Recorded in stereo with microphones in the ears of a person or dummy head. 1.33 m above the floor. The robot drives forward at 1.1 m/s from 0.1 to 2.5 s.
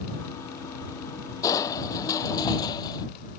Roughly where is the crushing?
Left.